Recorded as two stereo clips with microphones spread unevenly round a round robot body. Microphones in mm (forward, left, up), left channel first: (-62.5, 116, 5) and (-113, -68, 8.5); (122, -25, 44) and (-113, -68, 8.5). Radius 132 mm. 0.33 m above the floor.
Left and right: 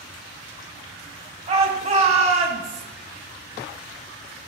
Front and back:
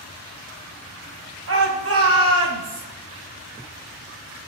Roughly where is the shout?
Behind right.